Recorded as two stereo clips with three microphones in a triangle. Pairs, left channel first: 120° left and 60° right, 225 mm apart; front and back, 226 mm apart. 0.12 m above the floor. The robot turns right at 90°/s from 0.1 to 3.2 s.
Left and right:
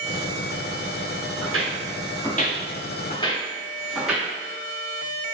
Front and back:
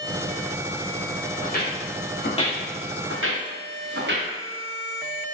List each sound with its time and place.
1.4 s footsteps: 60° right, 0.9 m; by 4.3 s 145° right, 1.1 m